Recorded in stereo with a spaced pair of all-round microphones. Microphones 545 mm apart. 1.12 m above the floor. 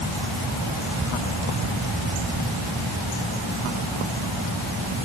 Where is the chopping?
No chopping in this recording.